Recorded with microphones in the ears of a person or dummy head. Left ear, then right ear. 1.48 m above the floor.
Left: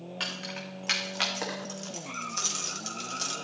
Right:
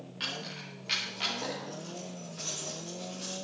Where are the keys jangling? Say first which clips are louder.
Left 2 dB; 35° left (ahead or behind), 2.5 m; by 3.3 s 55° left (ahead or behind), 2 m.